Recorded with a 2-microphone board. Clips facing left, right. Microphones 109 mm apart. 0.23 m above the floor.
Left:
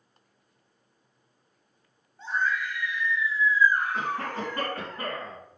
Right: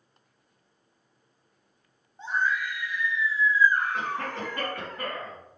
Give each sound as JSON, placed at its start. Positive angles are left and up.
{"t": 2.2, "sound": "a scream", "side_deg": -20, "distance_m": 1.6}
{"t": 3.9, "sound": "a cough", "side_deg": 35, "distance_m": 2.5}